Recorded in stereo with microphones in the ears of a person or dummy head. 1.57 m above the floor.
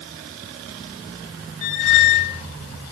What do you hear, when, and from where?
1.6 s a squeak: 40° left (ahead or behind), 0.8 m